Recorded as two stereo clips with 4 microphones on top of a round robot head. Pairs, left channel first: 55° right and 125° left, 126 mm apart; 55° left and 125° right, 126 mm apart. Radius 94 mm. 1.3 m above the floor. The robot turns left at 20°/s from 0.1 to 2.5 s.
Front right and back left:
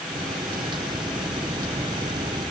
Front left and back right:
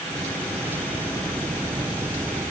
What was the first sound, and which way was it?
Only background noise.